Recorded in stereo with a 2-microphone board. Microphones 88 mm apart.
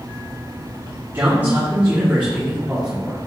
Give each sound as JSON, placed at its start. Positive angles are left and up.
{"t": 1.1, "sound": "a man speaking", "side_deg": -25, "distance_m": 1.9}